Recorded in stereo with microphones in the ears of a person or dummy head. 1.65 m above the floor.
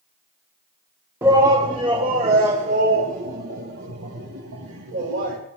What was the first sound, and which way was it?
A shout, 15° right (ahead or behind).